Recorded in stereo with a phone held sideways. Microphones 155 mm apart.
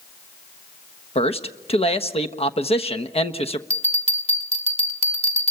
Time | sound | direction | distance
1.1 | a man speaking | 40° left (ahead or behind) | 1.1 m
3.7 | a bell | 45° left (ahead or behind) | 3 m